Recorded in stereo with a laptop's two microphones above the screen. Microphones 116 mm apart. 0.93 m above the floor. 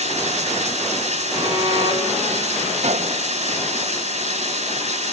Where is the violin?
35° right (ahead or behind), 6.5 m.